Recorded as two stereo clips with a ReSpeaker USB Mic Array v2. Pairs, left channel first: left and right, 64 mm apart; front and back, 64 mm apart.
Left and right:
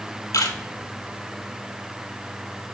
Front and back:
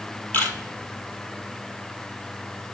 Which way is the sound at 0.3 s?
60° left.